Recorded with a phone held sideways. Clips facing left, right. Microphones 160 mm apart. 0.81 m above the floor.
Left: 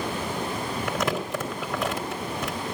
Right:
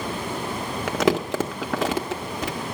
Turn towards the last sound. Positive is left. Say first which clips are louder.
# right 8 dB
turn(degrees=-80)